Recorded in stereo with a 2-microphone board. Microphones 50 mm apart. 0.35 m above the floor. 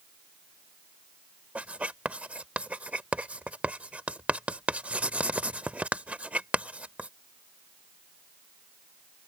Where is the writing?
25° right (ahead or behind).